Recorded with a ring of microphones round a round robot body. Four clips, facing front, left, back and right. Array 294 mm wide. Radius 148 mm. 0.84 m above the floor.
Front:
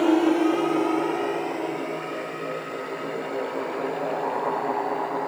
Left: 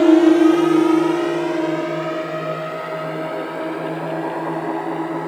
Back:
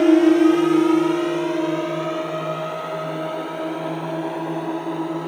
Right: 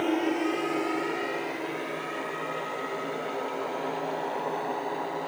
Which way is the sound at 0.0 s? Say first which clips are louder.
Left 16 dB, back 6 dB; 115° left.